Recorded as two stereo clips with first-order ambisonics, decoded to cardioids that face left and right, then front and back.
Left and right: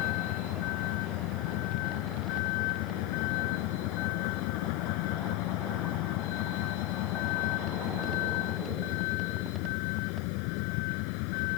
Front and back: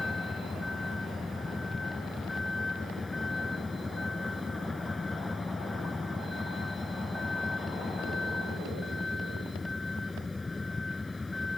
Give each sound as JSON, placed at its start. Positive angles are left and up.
{"t": 0.0, "sound": "a vehicle", "azimuth_deg": 80}